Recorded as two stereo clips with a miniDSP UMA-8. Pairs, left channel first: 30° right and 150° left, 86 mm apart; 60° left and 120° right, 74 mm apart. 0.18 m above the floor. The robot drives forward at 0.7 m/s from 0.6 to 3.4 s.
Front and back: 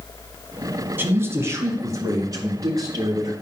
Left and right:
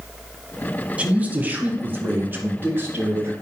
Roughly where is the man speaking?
Behind.